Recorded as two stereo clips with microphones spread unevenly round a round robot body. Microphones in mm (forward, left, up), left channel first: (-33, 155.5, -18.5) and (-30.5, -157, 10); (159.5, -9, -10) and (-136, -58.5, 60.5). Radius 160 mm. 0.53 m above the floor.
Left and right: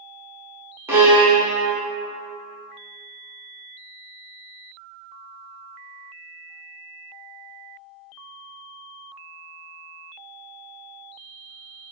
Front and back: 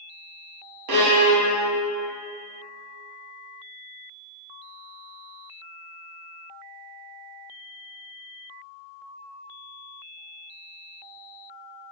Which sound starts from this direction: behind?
A violin, at 0.9 s.